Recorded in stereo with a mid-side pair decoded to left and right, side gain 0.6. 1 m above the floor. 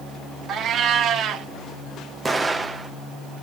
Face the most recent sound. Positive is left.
turn(degrees=-20)